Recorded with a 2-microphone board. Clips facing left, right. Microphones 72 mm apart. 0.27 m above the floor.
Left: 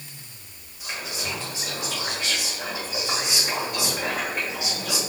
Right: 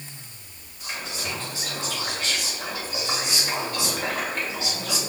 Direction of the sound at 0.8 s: 10° left (ahead or behind).